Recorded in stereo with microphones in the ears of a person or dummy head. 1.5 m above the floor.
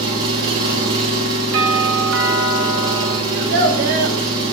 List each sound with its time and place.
0.0 s an engine running: 25° right (ahead or behind), 3.5 m
1.5 s a doorbell: 75° right (ahead or behind), 2.5 m
3.3 s a child speaking: 55° right (ahead or behind), 1.2 m